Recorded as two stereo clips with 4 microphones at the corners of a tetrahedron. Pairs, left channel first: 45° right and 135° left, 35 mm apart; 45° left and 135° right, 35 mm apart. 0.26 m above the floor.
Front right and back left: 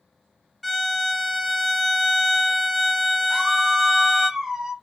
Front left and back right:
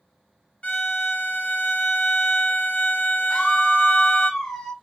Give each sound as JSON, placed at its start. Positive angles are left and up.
{"t": 0.6, "sound": "a violin", "azimuth_deg": 40, "distance_m": 0.6}
{"t": 3.3, "sound": "a scream", "azimuth_deg": 100, "distance_m": 1.0}